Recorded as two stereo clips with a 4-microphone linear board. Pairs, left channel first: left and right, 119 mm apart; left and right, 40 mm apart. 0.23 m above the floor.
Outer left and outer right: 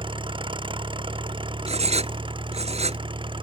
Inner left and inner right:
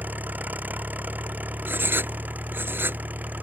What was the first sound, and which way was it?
An engine running, 45° right (ahead or behind).